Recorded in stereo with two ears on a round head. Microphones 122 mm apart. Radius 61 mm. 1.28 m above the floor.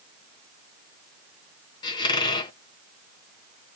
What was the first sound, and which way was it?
A squeak, 30° left (ahead or behind).